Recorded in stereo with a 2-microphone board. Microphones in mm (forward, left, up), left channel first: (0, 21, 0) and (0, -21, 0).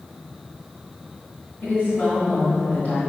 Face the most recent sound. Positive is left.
turn(degrees=45)  # may be behind; listen again after turning